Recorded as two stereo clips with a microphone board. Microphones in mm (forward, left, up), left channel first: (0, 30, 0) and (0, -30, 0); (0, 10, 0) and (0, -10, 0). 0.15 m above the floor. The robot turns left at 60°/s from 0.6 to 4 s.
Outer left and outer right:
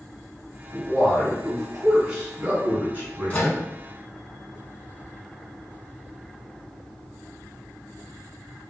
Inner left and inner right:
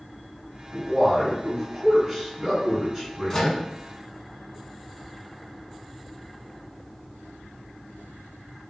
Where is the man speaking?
20° left (ahead or behind), 1.6 m; by 3.6 s 25° right (ahead or behind), 1.6 m.